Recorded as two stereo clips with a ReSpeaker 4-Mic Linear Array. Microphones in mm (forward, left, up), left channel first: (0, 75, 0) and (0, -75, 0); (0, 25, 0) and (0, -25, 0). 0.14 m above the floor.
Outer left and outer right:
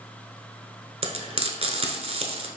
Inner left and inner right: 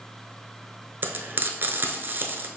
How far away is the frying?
About 0.8 m.